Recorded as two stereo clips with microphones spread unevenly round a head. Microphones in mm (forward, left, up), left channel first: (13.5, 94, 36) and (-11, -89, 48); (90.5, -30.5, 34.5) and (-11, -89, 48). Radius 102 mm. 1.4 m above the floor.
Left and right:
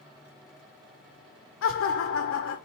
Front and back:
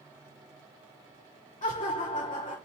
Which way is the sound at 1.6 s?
85° left.